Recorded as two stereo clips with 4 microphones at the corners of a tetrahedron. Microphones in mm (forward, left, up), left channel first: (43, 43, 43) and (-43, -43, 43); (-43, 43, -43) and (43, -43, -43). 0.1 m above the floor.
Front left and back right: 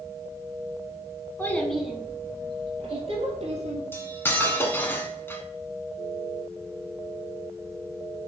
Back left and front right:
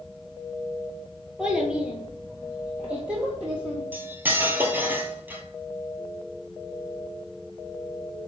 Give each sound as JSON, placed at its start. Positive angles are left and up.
{"t": 1.4, "sound": "a child speaking", "azimuth_deg": 25, "distance_m": 0.7}
{"t": 3.9, "sound": "cutlery clinking", "azimuth_deg": 0, "distance_m": 0.7}